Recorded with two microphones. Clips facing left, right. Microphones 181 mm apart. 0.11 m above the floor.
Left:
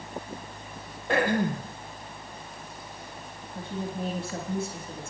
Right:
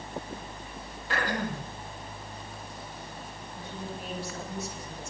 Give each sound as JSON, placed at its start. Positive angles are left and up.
{"t": 1.1, "sound": "throat clearing", "side_deg": 55, "distance_m": 2.5}
{"t": 3.5, "sound": "a woman speaking", "side_deg": 55, "distance_m": 4.0}